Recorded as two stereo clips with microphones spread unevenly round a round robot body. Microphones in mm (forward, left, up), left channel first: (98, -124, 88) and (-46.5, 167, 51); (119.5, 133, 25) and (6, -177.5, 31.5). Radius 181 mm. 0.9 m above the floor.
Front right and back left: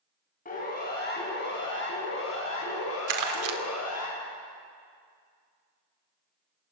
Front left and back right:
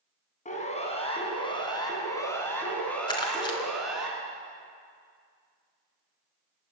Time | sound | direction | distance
0.5 | a siren | straight ahead | 6.5 m
3.1 | crumpling | 150° left | 2.5 m